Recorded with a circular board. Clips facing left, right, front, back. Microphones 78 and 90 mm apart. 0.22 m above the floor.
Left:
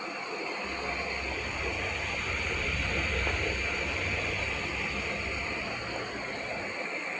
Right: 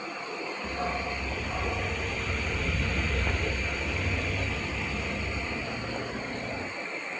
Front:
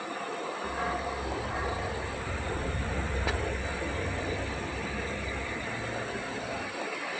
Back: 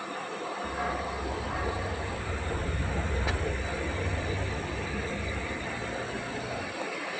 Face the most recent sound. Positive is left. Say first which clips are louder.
# right 3 dB, even
turn(degrees=-95)